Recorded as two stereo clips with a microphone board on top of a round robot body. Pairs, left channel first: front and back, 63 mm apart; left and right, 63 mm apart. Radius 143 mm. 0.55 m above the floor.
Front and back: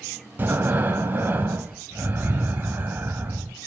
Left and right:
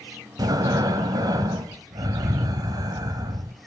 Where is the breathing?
120° right, 0.5 m.